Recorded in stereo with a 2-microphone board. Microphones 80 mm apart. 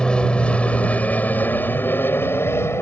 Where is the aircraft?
10° left (ahead or behind); by 2.8 s 30° left (ahead or behind).